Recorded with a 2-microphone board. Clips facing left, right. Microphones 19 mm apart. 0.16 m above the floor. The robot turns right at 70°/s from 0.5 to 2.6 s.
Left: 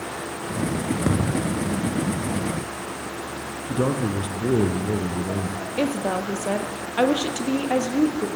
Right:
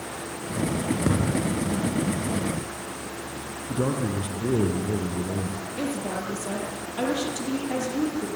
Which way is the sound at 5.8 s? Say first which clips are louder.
Left 6 dB; 60° left (ahead or behind).